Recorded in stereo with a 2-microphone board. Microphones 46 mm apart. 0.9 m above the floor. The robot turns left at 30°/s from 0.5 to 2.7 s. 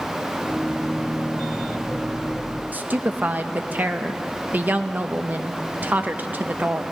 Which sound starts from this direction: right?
A woman speaking, at 2.7 s.